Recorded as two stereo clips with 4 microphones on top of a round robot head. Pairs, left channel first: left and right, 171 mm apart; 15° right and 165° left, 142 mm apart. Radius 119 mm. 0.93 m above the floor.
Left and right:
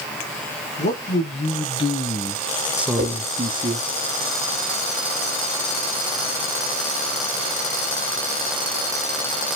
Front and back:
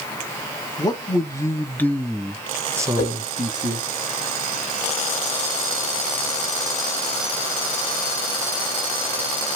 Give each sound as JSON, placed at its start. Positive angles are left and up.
{"t": 0.8, "sound": "a man speaking", "azimuth_deg": 50, "distance_m": 1.1}
{"t": 3.0, "sound": "a whoosh", "azimuth_deg": -35, "distance_m": 1.8}